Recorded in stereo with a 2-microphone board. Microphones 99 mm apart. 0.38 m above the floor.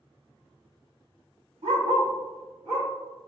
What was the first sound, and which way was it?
A dog barking, 75° right (ahead or behind).